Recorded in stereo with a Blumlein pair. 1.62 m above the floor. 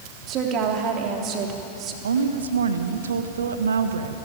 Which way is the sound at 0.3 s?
35° right.